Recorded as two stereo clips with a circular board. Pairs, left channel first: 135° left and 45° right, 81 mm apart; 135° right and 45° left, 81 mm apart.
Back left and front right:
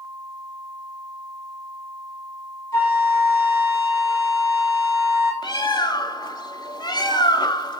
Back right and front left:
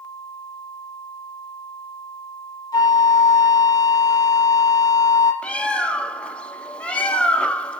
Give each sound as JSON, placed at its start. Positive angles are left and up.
{"t": 2.7, "sound": "a flute", "azimuth_deg": -170, "distance_m": 4.5}
{"t": 5.4, "sound": "a bird", "azimuth_deg": 150, "distance_m": 0.7}